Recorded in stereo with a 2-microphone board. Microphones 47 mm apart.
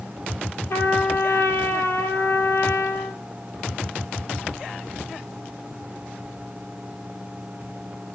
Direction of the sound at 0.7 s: 65° left (ahead or behind).